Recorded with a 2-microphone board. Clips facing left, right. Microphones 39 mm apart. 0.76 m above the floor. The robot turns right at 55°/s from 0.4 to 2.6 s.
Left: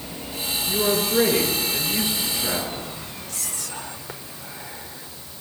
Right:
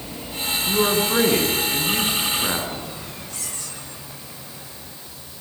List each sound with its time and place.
0.7 s a man speaking: 130° right, 8.5 m; by 2.9 s 25° right, 8.5 m
3.3 s whispering: 70° left (ahead or behind), 3.5 m